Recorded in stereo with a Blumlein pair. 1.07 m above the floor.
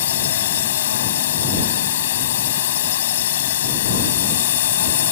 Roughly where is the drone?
Ahead left.